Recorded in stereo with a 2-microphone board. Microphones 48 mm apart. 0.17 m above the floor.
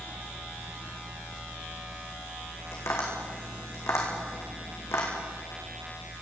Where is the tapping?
65° left (ahead or behind), 5 m.